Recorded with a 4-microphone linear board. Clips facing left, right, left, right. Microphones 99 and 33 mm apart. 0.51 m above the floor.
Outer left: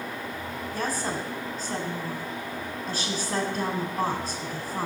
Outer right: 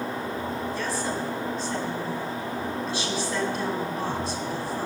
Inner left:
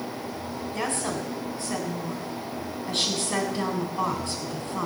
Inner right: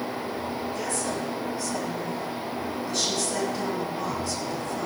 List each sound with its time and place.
0.7 s a woman speaking: 45° left (ahead or behind), 3.5 m